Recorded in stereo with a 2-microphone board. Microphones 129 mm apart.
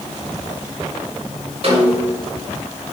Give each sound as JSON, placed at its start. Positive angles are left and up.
{"t": 1.6, "sound": "a snare drum", "side_deg": -50, "distance_m": 7.0}